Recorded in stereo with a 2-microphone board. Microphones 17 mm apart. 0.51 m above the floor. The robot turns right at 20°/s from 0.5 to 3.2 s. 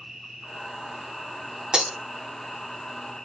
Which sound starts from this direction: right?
Breaking glass, at 1.7 s.